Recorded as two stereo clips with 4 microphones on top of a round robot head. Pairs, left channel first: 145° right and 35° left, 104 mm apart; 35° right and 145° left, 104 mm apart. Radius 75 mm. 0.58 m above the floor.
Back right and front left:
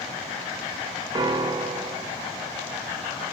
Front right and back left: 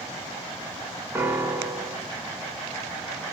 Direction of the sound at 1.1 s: 75° left.